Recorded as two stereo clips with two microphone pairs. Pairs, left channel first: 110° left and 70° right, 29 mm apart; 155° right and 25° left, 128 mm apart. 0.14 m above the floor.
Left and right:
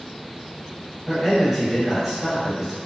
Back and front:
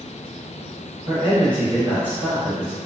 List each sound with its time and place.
1.1 s a man speaking: 30° right, 1.4 m